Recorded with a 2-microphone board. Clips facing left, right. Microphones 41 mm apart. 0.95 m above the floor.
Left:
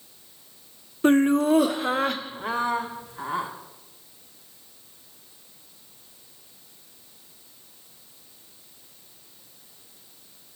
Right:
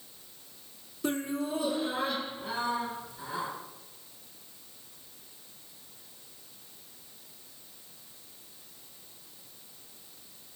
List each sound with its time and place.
1.0 s laughter: 40° left (ahead or behind), 0.5 m; by 3.5 s 55° left (ahead or behind), 1.9 m